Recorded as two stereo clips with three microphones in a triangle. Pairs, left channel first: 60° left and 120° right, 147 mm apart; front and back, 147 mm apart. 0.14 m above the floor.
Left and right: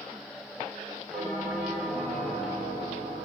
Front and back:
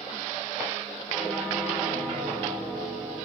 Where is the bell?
55° right, 6.5 m.